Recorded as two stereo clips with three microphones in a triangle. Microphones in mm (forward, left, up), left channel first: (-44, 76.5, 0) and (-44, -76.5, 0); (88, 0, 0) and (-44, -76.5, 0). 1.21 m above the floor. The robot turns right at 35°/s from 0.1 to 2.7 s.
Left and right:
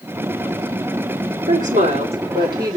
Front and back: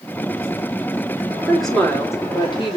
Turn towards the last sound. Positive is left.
turn(degrees=-20)